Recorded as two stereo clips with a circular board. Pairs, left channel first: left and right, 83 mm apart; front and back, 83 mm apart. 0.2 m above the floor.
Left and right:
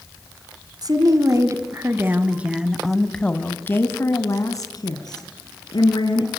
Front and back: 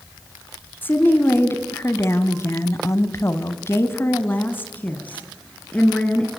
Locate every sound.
0.8 s a woman speaking: 60° right, 1.8 m; by 6.3 s 75° left, 2.5 m